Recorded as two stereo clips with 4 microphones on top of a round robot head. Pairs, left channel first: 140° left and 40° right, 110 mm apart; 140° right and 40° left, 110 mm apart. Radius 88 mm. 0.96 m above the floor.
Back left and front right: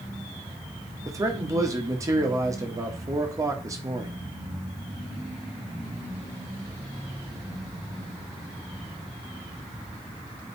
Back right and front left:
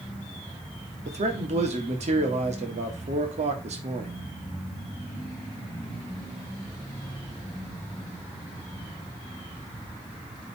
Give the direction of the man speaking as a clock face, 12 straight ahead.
11 o'clock.